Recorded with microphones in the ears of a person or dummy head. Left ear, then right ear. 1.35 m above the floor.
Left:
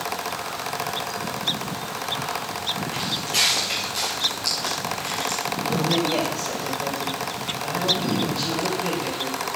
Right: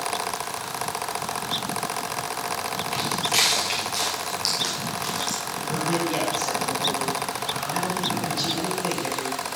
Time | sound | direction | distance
2.9 | footsteps | 35° right (ahead or behind) | 6 m
5.7 | a man speaking | 10° right (ahead or behind) | 6.5 m